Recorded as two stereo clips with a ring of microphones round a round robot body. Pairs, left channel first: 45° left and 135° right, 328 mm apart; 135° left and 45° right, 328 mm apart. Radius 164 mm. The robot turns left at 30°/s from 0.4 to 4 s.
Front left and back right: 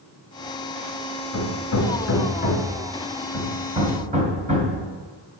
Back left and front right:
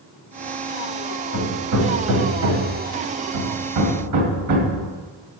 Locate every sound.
1.3 s hammering: 15° left, 2 m; by 4.8 s 65° right, 2 m